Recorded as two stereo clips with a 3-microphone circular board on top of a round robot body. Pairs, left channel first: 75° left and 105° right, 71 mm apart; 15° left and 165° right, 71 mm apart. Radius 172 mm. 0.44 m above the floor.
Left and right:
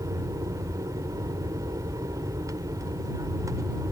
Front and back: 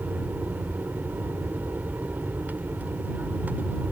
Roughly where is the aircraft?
Right.